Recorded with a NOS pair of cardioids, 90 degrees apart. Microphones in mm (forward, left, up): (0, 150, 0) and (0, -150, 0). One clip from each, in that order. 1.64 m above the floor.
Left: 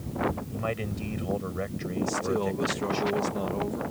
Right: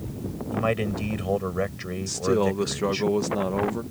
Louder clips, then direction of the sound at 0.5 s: Right 7 dB; 40° right.